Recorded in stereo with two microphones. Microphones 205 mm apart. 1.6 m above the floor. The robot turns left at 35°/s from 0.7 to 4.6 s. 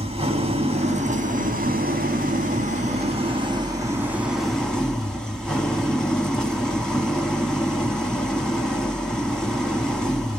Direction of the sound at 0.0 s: 50° right.